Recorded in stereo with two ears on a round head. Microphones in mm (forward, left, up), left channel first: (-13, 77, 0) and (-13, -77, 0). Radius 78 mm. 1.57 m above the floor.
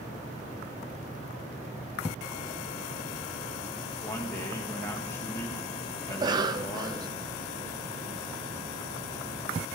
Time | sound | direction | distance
4.0 | a man speaking | 15° left (ahead or behind) | 1.7 m
6.1 | a cough | 25° right (ahead or behind) | 0.5 m